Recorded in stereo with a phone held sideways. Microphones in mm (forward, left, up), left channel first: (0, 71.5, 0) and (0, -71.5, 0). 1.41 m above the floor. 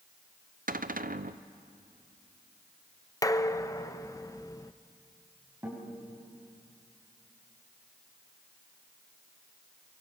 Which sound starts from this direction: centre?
A guitar, at 5.6 s.